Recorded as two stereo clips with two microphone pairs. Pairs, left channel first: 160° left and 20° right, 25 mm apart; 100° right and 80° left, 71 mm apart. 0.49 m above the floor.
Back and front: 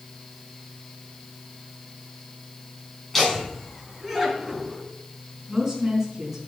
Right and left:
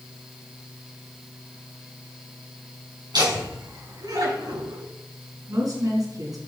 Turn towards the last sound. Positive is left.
turn(degrees=50)